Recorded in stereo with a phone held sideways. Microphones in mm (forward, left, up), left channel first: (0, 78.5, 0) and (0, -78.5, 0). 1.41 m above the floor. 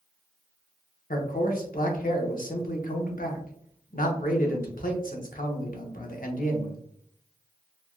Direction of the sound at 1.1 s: 65° left (ahead or behind).